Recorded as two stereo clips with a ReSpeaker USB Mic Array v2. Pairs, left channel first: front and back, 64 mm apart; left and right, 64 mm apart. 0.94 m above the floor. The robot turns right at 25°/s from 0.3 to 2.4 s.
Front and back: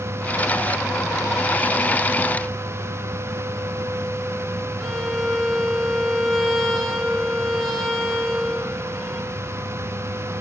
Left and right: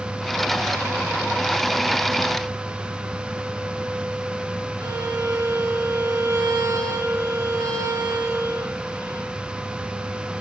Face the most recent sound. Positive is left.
turn(degrees=-90)